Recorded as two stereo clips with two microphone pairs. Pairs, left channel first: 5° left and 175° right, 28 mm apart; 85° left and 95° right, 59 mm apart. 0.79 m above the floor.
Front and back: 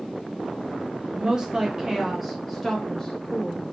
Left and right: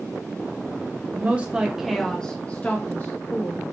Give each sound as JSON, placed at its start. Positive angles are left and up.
{"t": 1.1, "sound": "a woman speaking", "azimuth_deg": -140, "distance_m": 0.9}